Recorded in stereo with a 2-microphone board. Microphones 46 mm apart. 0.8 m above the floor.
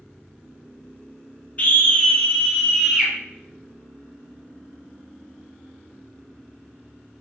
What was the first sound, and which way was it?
A scream, 40° left (ahead or behind).